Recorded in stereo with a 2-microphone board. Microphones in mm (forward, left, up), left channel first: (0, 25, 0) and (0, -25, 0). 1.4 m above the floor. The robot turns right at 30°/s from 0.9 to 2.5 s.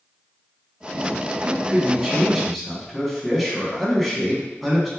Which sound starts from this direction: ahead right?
A man speaking, at 1.4 s.